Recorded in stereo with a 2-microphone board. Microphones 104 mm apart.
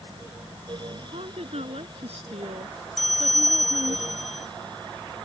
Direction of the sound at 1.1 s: 80° right.